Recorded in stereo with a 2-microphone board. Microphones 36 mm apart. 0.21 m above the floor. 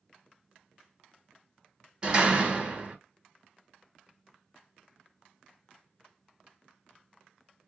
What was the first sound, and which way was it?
A door slam, 25° right (ahead or behind).